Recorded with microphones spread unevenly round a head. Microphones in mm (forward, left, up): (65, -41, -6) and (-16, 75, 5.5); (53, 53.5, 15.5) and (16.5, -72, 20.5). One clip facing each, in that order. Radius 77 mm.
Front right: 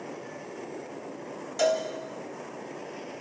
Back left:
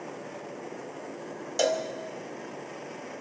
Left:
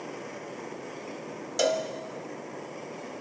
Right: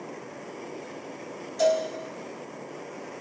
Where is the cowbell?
80° left, 2.5 m.